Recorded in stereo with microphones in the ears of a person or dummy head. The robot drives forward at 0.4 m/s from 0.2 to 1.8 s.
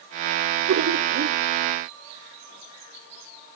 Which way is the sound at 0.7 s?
55° right (ahead or behind).